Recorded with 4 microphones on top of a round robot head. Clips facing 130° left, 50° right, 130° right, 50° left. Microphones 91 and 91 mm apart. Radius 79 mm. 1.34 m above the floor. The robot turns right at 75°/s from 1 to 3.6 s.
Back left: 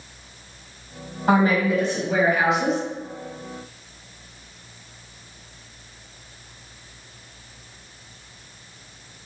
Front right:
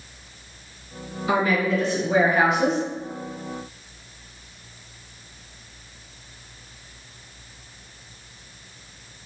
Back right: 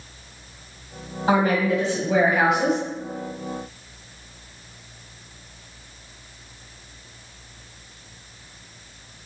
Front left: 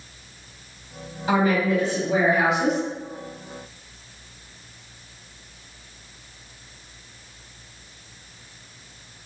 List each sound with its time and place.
1.3 s a woman speaking: 160° left, 1.5 m; by 2.8 s 85° right, 1.5 m